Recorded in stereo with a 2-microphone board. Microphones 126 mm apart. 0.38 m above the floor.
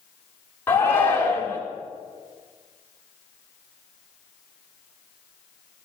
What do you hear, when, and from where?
0.7 s a shout: 20° left (ahead or behind), 1.0 m